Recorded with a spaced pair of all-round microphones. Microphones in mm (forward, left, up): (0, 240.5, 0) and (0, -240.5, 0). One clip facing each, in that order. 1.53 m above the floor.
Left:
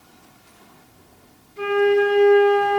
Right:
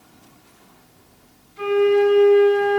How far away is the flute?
About 2.5 m.